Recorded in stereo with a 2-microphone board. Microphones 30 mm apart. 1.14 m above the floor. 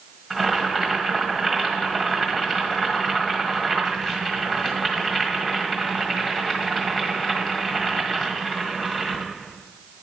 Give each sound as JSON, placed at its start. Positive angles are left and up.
{"t": 0.3, "sound": "boiling", "side_deg": 20, "distance_m": 1.6}